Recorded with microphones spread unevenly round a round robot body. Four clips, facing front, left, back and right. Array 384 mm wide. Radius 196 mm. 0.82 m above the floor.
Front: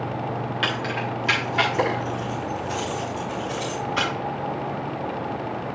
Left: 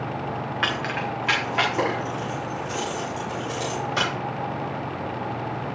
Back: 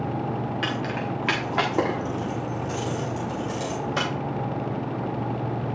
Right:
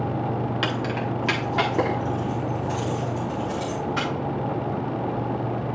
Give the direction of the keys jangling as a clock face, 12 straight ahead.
4 o'clock.